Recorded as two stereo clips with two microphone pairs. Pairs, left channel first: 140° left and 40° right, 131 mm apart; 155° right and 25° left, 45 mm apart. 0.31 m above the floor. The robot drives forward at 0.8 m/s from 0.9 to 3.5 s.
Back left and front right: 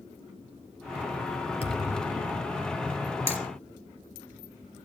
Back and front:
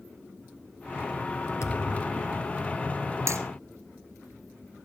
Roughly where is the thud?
Behind.